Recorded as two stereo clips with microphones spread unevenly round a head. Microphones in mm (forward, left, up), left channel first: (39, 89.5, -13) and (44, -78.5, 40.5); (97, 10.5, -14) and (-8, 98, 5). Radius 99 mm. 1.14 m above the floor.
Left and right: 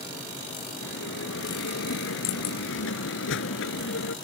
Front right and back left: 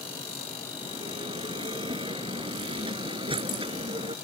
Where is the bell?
90° left.